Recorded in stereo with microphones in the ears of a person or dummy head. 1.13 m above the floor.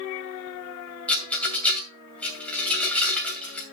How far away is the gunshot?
I don't hear a gunshot.